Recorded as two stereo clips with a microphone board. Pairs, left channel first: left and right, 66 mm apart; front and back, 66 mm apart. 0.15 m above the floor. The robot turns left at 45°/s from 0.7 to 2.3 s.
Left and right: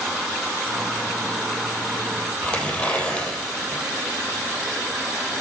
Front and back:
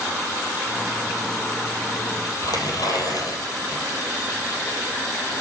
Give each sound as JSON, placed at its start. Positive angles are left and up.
{"t": 2.4, "sound": "tearing paper", "azimuth_deg": 20, "distance_m": 3.0}